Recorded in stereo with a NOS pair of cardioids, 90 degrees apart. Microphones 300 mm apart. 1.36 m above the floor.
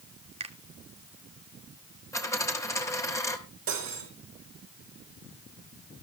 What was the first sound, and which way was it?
A finger snap, 20° right.